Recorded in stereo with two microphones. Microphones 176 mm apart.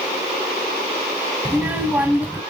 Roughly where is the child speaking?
Centre.